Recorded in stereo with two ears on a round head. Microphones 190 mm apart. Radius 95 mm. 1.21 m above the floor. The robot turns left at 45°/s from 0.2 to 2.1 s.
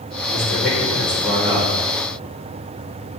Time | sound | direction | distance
0.3 | a man speaking | 55° left | 3 m